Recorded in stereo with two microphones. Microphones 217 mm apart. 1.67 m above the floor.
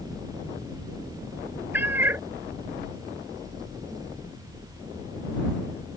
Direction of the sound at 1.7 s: 10° right (ahead or behind).